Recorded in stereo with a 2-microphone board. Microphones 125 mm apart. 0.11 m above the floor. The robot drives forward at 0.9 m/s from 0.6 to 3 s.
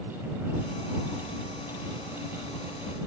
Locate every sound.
Only background noise.